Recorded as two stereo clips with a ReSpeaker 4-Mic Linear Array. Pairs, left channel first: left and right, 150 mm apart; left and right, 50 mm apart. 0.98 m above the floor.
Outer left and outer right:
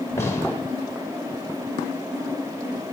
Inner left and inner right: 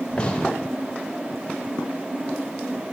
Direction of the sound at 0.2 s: 20° left (ahead or behind).